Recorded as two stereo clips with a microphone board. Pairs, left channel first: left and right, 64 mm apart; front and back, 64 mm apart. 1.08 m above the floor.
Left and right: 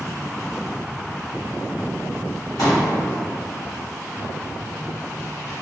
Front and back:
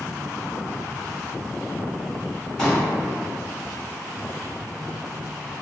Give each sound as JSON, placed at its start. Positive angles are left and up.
{"t": 2.6, "sound": "a pop", "azimuth_deg": 75, "distance_m": 1.4}